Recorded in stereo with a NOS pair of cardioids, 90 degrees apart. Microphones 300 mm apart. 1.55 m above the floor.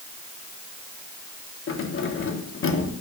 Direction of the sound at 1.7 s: 45° left.